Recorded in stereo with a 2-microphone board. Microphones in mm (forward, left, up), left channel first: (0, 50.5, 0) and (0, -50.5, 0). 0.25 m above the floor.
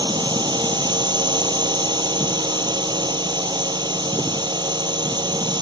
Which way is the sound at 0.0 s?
50° right (ahead or behind).